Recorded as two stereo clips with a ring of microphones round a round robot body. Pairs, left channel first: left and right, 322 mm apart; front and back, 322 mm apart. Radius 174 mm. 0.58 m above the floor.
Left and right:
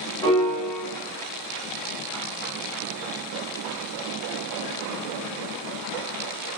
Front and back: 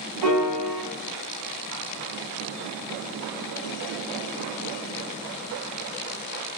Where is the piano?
170° left, 0.8 m.